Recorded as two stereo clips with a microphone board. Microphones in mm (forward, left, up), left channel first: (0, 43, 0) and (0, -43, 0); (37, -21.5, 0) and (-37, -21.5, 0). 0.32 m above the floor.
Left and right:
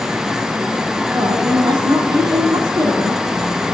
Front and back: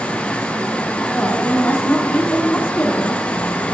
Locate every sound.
1.1 s a woman speaking: 65° right, 2.5 m